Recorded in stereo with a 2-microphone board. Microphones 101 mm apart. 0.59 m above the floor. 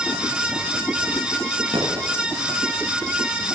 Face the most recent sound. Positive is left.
turn(degrees=-70)  # may be behind; listen again after turning